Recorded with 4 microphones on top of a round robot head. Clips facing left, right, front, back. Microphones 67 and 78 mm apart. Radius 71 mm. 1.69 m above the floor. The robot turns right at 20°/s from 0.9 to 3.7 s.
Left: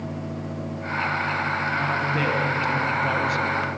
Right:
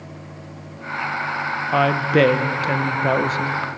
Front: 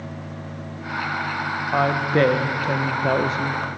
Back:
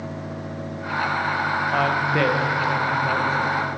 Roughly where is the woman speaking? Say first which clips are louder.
Right 7 dB, front 4 dB; right.